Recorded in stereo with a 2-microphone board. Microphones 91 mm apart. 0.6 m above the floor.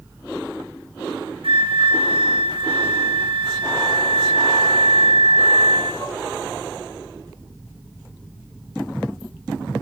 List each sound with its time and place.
1.4 s a flute: 75° right (ahead or behind), 7 m